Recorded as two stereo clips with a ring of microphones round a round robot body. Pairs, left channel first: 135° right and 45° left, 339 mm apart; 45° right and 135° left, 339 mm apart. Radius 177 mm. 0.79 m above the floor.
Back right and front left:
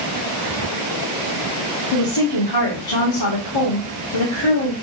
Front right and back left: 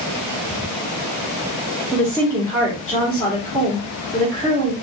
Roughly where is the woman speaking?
Behind right.